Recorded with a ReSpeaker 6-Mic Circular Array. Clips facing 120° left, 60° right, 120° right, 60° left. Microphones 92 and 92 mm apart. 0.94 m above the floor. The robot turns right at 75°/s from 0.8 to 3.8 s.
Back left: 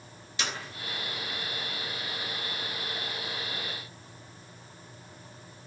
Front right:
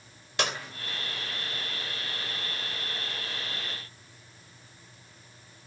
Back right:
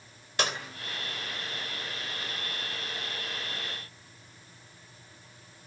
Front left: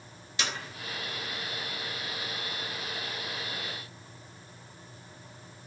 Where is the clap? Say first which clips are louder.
Front right 5 dB, back right 4 dB; 85° right, 3 m.